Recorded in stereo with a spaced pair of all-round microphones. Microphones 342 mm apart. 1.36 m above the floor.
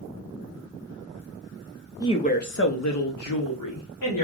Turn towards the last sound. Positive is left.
turn(degrees=85)